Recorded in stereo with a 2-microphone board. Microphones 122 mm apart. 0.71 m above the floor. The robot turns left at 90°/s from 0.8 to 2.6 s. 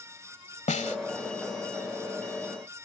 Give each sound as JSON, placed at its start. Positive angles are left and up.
{"t": 0.7, "sound": "a snare drum", "side_deg": 80}